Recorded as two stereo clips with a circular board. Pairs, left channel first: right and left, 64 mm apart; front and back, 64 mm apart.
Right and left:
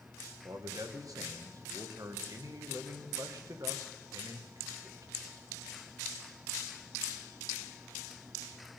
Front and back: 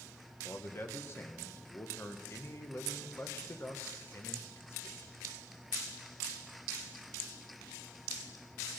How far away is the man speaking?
About 1.4 m.